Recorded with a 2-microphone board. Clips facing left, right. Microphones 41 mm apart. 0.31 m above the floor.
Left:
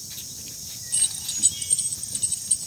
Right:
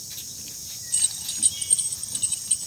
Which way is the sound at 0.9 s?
20° left (ahead or behind).